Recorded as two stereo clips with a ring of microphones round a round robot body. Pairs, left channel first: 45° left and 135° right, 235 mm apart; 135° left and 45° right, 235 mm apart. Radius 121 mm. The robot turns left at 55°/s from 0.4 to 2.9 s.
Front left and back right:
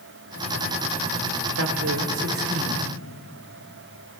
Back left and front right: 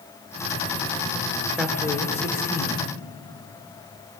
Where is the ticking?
I don't hear ticking.